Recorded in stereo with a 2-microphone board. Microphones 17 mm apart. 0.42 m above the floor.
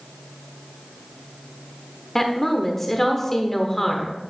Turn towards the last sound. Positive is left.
turn(degrees=20)  # may be behind; listen again after turning